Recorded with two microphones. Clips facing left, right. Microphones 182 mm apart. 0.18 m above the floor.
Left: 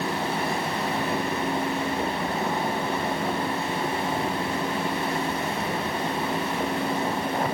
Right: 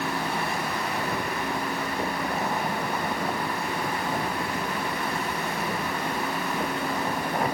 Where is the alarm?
I don't hear an alarm.